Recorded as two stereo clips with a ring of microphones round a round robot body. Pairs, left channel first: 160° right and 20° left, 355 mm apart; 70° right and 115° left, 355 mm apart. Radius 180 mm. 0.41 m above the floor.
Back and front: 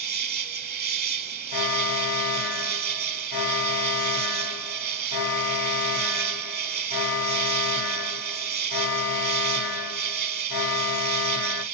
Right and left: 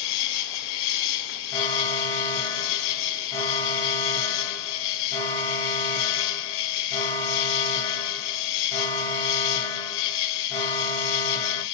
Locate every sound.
0.0 s an insect: 45° right, 1.0 m
1.5 s an alarm: 150° right, 2 m